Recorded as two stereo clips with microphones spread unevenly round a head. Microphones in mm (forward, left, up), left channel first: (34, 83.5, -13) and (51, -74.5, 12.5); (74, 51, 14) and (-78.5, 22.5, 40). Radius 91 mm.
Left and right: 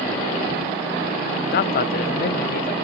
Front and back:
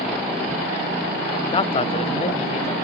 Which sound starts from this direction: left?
A man speaking, at 1.5 s.